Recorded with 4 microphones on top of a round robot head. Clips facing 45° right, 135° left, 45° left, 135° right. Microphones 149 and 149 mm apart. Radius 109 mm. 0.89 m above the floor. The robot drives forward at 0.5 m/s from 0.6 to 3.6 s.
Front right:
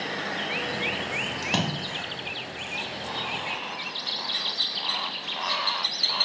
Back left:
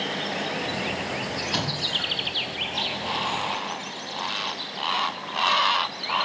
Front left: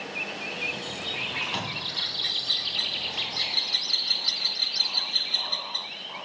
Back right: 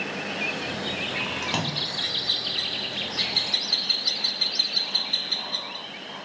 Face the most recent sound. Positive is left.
turn(degrees=-105)